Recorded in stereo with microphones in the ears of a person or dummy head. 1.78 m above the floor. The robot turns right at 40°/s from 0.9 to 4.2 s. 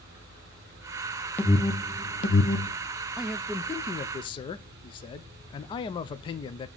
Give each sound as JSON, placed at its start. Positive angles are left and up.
{"t": 1.4, "sound": "an alarm", "side_deg": 5, "distance_m": 1.1}
{"t": 3.2, "sound": "a man speaking", "azimuth_deg": -5, "distance_m": 0.6}